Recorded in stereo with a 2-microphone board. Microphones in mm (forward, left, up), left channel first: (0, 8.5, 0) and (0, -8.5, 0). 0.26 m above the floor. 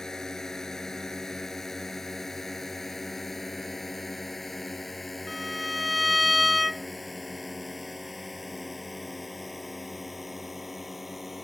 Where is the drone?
30° left (ahead or behind); by 11.5 s 15° right (ahead or behind).